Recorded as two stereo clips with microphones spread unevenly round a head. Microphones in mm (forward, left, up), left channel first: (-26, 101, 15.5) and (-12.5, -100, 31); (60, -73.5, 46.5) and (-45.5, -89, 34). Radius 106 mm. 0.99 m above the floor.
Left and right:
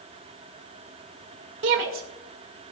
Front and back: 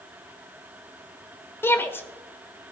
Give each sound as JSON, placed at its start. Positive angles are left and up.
{"t": 1.6, "sound": "a shout", "azimuth_deg": -60, "distance_m": 1.8}